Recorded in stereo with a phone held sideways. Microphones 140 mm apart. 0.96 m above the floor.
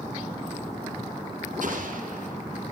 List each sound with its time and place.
1.6 s an explosion: 75° right (ahead or behind), 5.5 m